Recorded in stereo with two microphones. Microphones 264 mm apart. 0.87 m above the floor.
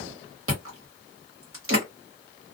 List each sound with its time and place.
0.5 s chewing: 55° right (ahead or behind), 1.3 m